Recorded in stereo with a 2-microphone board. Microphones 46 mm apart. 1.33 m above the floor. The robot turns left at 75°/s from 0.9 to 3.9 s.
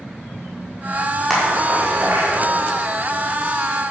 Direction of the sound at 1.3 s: Centre (ahead or behind).